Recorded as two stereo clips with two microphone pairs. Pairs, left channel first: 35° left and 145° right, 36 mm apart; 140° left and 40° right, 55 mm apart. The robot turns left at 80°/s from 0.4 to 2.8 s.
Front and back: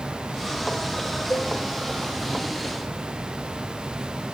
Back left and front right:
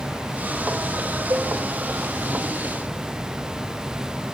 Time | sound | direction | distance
1.3 | a cowbell | 5° right | 1.4 m